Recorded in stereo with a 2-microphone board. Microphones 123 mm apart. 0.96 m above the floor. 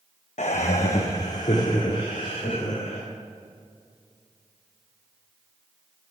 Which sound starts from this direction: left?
Laughter, at 0.4 s.